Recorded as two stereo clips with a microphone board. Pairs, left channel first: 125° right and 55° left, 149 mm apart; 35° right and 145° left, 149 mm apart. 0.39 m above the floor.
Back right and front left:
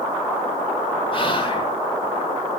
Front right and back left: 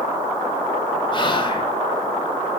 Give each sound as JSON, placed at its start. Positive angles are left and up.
{"t": 1.1, "sound": "whispering", "azimuth_deg": -80, "distance_m": 1.4}